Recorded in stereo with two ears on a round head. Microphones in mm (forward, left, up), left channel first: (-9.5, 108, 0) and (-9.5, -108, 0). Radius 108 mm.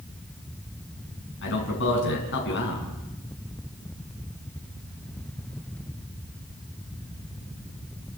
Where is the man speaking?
50° left (ahead or behind), 6 m.